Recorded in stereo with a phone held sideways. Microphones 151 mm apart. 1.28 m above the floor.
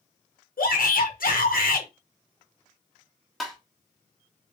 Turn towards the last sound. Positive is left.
turn(degrees=0)  # may be behind; listen again after turning